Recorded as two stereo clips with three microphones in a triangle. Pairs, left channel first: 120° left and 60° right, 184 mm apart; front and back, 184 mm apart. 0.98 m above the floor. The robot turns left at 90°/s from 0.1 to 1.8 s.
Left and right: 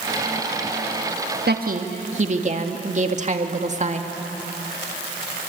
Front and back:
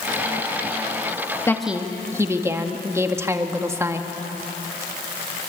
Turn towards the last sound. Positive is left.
turn(degrees=-105)